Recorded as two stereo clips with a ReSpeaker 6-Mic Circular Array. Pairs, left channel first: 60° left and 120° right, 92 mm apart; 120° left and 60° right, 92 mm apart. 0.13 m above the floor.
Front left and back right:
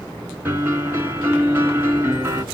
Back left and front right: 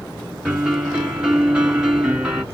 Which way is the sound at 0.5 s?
125° right.